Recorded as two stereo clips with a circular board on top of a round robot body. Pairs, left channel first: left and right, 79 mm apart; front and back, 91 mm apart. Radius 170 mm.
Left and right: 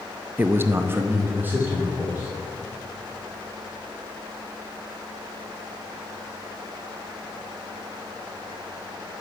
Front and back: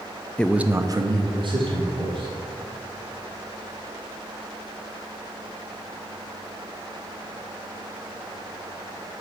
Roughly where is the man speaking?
Ahead right.